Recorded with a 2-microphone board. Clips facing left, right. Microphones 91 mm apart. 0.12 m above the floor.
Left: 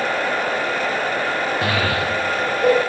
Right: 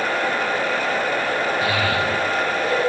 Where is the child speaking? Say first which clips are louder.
Even; 60° left (ahead or behind), 3 m.